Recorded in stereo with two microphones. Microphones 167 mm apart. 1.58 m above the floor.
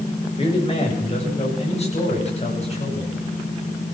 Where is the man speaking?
35° left (ahead or behind), 7.5 m; by 3.2 s 40° left (ahead or behind), 11 m.